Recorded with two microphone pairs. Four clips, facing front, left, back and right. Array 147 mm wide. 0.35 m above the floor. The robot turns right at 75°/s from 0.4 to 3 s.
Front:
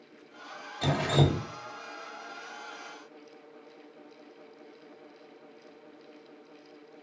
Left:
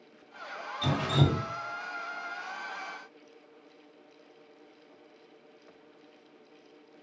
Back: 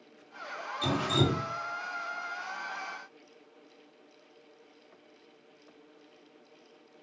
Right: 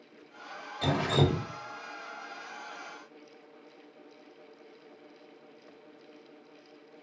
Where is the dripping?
35° right, 1.3 m; by 1.5 s 15° left, 1.3 m.